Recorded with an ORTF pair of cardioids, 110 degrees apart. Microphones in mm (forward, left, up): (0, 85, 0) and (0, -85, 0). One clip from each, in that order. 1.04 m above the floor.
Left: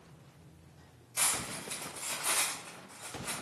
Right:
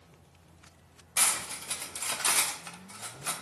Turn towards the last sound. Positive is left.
turn(degrees=-60)